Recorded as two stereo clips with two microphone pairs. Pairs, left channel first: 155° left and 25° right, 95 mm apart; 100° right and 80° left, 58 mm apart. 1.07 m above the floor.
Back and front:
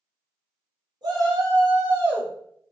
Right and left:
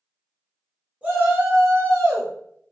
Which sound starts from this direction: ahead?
A shout, at 1.0 s.